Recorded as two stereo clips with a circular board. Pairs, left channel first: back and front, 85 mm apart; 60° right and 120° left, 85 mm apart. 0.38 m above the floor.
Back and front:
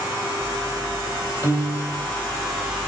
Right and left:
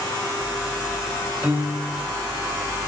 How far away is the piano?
About 1.4 m.